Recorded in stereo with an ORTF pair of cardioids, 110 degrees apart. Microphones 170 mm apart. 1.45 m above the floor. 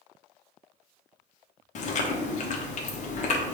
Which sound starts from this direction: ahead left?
Chewing, at 1.8 s.